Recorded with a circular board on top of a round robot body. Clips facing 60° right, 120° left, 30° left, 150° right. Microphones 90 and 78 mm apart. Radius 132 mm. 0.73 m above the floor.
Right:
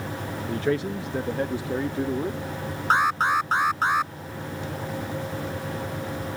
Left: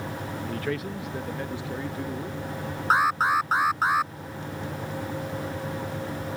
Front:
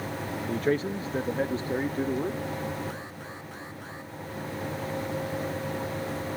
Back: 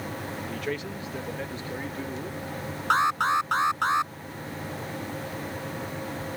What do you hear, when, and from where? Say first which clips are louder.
0.5 s a man speaking: right 7 dB, front 8 dB; 5° right; by 2.4 s 20° right
2.9 s an alarm: even, back 18 dB; 155° right